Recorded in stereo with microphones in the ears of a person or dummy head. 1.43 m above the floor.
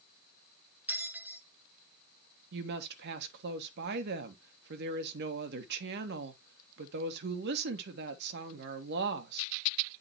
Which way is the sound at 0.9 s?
5° right (ahead or behind).